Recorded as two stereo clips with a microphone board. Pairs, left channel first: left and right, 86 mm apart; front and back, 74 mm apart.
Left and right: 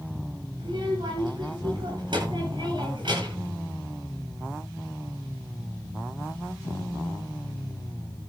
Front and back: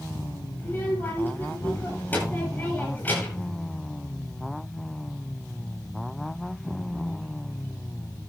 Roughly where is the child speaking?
Ahead right.